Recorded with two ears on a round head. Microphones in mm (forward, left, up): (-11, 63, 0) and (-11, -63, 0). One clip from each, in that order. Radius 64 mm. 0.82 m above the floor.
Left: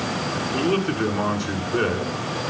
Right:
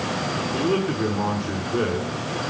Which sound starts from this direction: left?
A man speaking, at 0.5 s.